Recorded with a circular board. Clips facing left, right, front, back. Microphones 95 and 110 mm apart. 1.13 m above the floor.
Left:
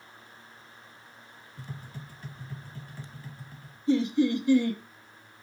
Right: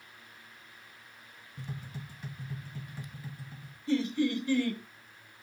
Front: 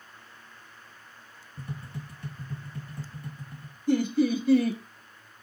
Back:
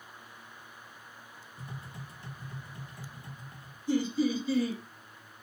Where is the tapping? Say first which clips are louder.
Right 1 dB, front 6 dB; 20° right, 2 m.